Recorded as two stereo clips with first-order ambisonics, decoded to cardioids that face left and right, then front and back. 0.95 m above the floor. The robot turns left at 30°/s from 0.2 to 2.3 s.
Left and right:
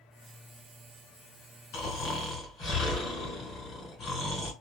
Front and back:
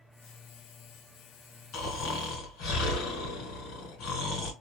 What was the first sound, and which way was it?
Snoring, 45° left.